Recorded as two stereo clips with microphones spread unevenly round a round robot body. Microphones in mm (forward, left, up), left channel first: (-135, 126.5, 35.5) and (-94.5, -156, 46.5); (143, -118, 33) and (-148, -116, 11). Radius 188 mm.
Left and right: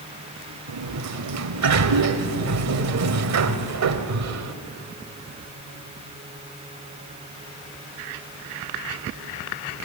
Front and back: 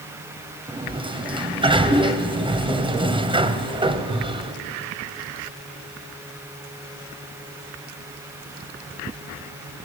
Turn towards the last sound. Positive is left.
turn(degrees=-110)